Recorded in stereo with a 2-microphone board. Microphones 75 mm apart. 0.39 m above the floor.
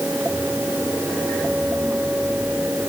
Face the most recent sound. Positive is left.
No sound to turn to.